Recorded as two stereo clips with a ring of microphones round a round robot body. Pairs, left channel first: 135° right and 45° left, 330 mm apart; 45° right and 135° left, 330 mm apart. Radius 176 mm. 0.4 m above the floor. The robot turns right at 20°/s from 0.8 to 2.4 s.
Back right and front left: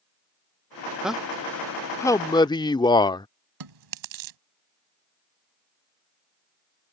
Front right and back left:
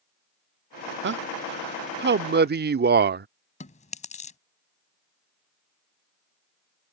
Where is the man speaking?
130° left; by 3.3 s 160° left.